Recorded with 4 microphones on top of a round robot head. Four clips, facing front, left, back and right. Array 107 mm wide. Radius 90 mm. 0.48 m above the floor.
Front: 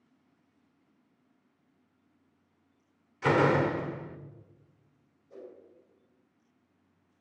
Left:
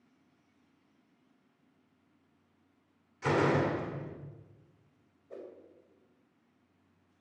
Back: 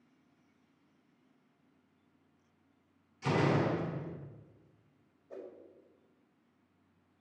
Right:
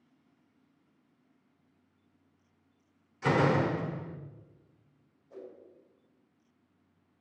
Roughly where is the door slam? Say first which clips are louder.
Right 1 dB, front 6 dB; ahead.